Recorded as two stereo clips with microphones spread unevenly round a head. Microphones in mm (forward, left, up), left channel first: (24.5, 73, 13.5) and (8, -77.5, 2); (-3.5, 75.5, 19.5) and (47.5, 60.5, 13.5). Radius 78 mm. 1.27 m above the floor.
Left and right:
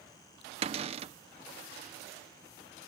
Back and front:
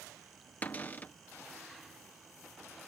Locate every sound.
0.6 s a cupboard door: 130° right